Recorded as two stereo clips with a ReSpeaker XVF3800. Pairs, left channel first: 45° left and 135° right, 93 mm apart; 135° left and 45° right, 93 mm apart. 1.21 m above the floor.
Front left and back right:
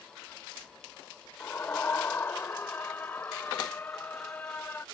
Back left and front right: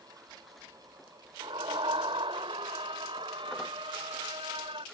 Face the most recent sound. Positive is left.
turn(degrees=-25)